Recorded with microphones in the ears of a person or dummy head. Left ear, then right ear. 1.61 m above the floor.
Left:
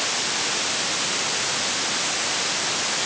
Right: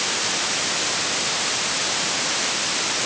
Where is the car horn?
No car horn in this recording.